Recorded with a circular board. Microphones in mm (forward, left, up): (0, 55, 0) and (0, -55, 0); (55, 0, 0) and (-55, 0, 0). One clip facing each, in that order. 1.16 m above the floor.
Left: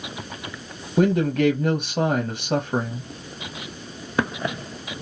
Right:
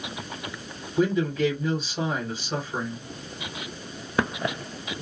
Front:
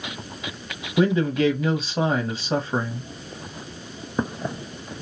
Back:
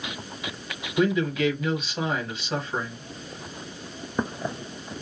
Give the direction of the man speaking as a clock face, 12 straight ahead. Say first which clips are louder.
Left 4 dB, front 3 dB; 10 o'clock.